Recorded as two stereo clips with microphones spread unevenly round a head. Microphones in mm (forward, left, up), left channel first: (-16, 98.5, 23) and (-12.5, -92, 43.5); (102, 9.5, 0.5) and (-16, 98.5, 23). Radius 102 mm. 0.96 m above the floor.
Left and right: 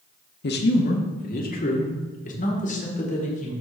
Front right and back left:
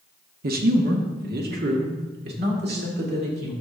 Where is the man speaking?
125° left, 1.1 m; by 3.5 s 140° left, 3 m.